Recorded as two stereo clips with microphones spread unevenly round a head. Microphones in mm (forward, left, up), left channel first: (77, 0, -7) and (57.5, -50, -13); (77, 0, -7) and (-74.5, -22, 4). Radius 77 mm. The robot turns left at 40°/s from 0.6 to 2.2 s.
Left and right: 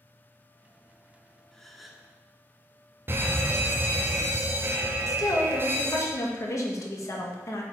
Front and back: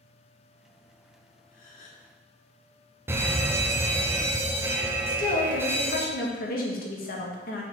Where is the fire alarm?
100° right, 1.1 m.